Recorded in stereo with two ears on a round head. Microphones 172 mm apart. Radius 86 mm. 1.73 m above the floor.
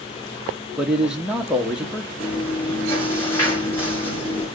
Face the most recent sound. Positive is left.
turn(degrees=10)  # may be behind; listen again after turning